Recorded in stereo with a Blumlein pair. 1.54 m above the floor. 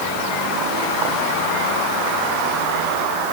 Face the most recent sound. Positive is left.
No sound to turn to.